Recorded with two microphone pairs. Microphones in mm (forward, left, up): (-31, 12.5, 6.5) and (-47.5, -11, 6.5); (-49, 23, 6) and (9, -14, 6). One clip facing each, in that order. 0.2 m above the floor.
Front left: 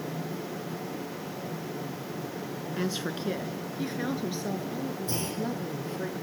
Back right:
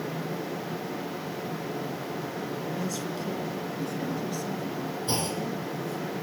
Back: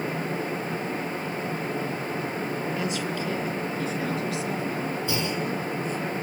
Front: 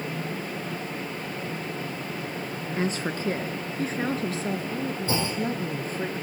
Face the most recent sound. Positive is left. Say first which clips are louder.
# back right 3 dB, front 1 dB
turn(degrees=-85)